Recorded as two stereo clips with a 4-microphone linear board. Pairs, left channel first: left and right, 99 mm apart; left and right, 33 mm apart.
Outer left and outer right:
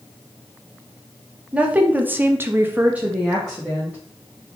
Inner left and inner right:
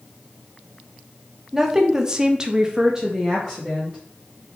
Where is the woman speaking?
10° right (ahead or behind), 1.0 m; by 4.0 s 5° right (ahead or behind), 1.4 m.